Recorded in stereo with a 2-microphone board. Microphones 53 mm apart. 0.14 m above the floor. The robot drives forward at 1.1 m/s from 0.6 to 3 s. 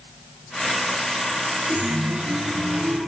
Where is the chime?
25° right (ahead or behind), 2.5 m; by 3.1 s 20° right (ahead or behind), 3.5 m.